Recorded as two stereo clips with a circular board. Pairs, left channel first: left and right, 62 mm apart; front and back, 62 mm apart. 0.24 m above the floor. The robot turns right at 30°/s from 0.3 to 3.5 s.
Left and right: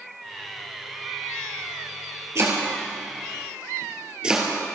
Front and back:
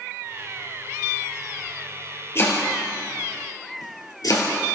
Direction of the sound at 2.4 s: 50° right.